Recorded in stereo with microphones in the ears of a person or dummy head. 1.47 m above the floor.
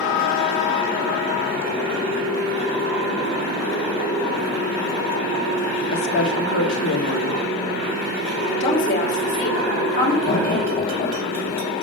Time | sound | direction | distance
5.9 | a woman speaking | 75° left (ahead or behind) | 2.0 m
8.4 | a woman speaking | 55° left (ahead or behind) | 5.5 m
10.2 | laughter | 65° left (ahead or behind) | 4 m